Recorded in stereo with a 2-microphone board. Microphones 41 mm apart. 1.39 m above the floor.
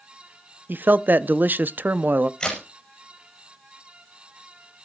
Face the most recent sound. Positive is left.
turn(degrees=15)  # may be behind; listen again after turning